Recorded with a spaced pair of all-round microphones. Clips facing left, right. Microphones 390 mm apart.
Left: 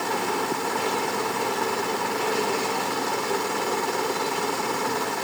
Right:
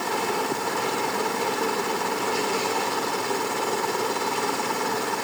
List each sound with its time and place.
Only background noise.